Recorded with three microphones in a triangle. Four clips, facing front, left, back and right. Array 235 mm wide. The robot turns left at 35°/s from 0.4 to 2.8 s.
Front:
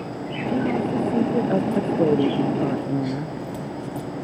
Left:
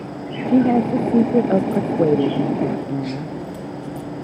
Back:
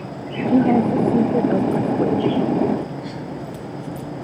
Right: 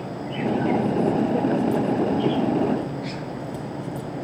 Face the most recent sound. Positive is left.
turn(degrees=45)